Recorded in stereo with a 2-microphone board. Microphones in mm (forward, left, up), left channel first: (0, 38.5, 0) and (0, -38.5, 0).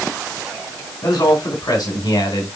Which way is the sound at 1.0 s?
75° left (ahead or behind).